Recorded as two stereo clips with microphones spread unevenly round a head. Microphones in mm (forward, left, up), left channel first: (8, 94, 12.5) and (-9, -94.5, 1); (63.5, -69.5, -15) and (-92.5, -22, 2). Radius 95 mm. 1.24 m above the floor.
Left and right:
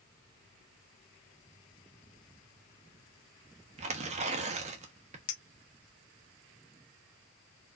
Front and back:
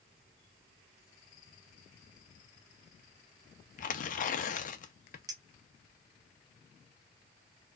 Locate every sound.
3.8 s tearing paper: 45° right, 0.7 m
5.3 s a clink: 95° left, 0.7 m